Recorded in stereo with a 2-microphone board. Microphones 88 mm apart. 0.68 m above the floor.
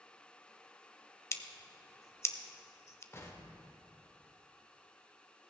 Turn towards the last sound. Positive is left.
turn(degrees=35)  # may be behind; listen again after turning